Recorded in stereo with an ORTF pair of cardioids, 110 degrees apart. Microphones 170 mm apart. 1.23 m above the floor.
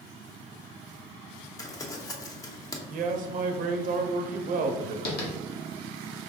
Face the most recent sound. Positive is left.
turn(degrees=65)